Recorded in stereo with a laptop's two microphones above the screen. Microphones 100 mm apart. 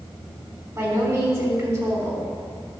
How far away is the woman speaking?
About 3.5 m.